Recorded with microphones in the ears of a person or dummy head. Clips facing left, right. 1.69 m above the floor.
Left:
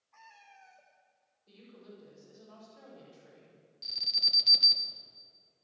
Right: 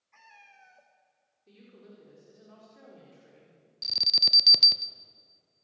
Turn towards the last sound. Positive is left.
turn(degrees=-65)  # may be behind; listen again after turning